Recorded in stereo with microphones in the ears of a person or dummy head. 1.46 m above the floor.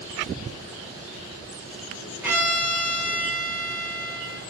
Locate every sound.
2.2 s a violin: 5° right (ahead or behind), 0.6 m